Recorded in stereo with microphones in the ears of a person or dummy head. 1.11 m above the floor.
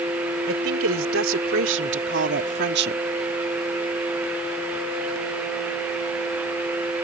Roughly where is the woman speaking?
Right.